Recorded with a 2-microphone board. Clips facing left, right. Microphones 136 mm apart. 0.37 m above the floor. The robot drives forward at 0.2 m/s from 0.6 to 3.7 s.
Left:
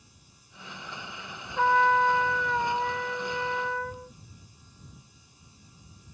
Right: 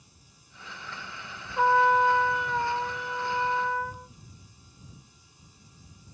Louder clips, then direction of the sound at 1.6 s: Right 1 dB; 10° right (ahead or behind).